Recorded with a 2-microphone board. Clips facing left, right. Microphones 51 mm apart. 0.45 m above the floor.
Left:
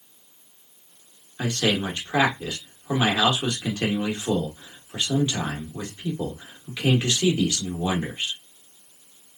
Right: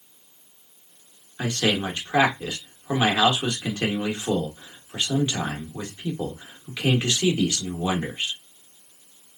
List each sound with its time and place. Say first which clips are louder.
1.4 s a man speaking: even; 20° right (ahead or behind), 1.0 m